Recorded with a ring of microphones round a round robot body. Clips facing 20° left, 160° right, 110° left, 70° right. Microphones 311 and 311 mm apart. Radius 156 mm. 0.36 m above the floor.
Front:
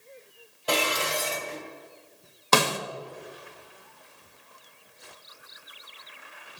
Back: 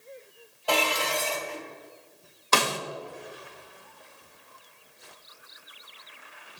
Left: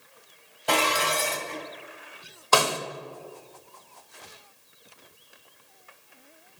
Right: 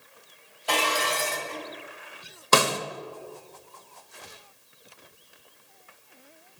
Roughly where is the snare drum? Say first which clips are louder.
Front 3 dB, right 1 dB; ahead.